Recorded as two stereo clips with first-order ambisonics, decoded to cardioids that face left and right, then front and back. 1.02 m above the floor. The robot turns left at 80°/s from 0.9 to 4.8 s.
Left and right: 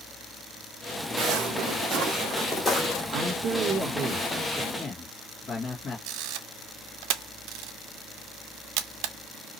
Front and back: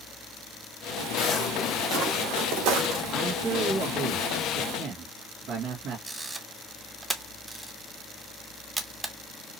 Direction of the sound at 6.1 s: 100° right.